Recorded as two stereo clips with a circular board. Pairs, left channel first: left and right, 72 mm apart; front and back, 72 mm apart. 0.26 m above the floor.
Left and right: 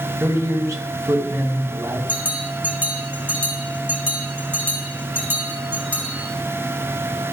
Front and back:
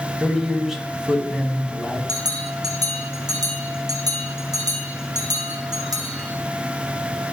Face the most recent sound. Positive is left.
turn(degrees=-155)